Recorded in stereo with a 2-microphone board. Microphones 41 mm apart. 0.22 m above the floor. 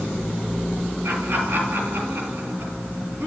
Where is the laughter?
70° right (ahead or behind), 4 m.